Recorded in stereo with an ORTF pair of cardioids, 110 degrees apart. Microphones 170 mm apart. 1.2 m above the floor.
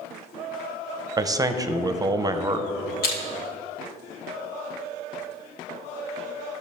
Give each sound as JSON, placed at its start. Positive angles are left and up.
{"t": 1.2, "sound": "a man speaking", "azimuth_deg": -25, "distance_m": 0.6}
{"t": 3.0, "sound": "crushing", "azimuth_deg": 65, "distance_m": 1.9}